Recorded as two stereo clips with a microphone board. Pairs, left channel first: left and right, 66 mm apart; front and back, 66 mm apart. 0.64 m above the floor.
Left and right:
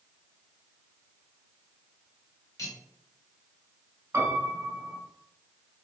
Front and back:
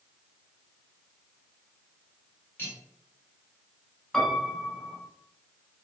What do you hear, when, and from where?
2.6 s cutlery clinking: 55° left, 1.3 m
4.1 s a piano: 85° right, 1.3 m